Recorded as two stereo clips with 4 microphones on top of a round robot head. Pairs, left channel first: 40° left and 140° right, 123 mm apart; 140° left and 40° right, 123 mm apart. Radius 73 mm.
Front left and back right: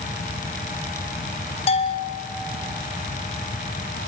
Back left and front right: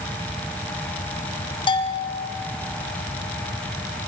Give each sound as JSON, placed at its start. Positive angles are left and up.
{"t": 1.7, "sound": "a bell", "azimuth_deg": 85, "distance_m": 2.0}